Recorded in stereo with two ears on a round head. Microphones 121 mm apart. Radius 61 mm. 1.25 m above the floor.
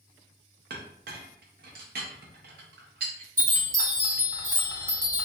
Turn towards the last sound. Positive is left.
turn(degrees=-20)  # may be behind; listen again after turning